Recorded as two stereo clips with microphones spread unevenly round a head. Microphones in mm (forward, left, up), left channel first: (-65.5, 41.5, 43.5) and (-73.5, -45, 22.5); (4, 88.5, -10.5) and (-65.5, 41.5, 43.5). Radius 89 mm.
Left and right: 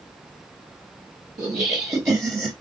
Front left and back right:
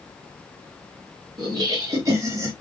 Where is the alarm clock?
No alarm clock in this recording.